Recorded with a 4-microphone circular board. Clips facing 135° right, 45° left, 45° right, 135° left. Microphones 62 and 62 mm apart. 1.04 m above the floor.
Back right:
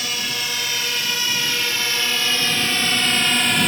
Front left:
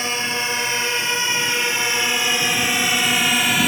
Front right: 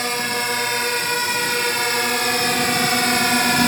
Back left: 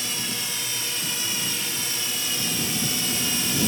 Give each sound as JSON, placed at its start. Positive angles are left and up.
{"t": 0.0, "sound": "a drone", "azimuth_deg": -15}